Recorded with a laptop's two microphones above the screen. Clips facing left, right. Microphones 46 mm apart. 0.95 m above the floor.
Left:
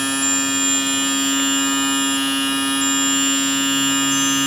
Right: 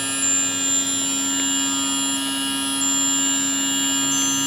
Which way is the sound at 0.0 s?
70° left (ahead or behind).